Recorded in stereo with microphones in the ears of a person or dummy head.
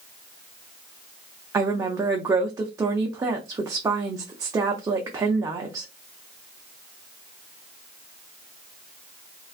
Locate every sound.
1.5 s a woman speaking: 20° right (ahead or behind), 0.5 m